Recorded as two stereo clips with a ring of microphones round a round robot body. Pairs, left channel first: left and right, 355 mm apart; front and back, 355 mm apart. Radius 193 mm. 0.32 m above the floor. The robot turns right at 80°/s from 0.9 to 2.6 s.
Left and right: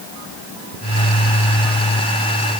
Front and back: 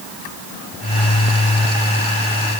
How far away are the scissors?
I don't hear scissors.